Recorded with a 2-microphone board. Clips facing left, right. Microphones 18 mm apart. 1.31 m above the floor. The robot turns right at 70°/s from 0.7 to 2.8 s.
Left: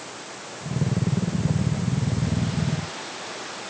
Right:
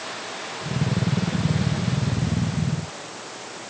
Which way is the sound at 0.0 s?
125° right.